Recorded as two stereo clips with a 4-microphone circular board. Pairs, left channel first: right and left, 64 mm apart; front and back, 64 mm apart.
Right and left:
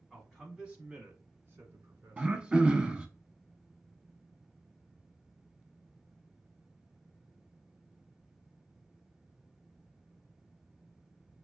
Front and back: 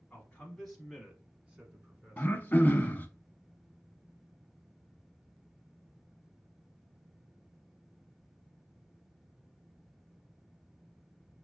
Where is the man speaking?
5° right, 1.1 m; by 2.5 s 125° left, 1.8 m.